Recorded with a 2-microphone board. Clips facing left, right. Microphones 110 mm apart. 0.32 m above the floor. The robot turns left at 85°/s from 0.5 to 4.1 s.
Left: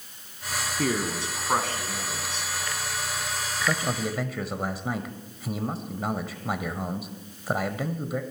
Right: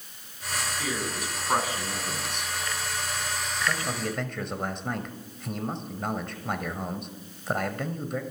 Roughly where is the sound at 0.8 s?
Ahead left.